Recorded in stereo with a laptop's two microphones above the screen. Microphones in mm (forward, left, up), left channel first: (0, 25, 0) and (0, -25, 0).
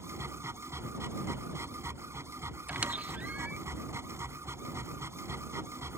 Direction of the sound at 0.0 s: 75° right (ahead or behind).